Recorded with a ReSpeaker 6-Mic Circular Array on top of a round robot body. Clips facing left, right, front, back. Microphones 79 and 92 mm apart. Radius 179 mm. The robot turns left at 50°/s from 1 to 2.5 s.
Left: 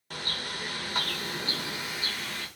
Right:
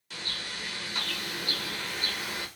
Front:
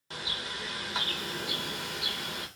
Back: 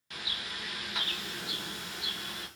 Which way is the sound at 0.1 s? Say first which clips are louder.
Left 3 dB, front 3 dB; 55° left.